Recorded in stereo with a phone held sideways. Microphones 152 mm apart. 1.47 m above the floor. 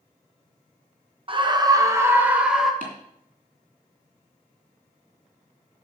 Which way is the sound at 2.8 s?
65° right (ahead or behind).